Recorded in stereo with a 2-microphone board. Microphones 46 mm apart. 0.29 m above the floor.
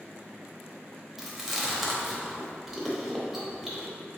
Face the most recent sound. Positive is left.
turn(degrees=-5)  # may be behind; listen again after turning